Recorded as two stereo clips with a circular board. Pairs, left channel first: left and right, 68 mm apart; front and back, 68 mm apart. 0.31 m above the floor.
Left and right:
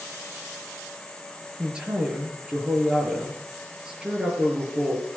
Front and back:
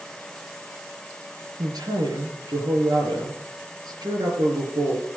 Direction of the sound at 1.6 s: 165° right.